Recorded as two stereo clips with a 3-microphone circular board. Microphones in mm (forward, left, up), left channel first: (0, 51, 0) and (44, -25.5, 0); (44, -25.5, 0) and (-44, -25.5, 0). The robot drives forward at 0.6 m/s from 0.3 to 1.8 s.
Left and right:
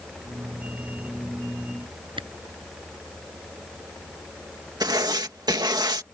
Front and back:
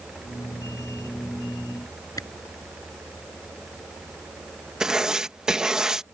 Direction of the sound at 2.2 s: 45° right.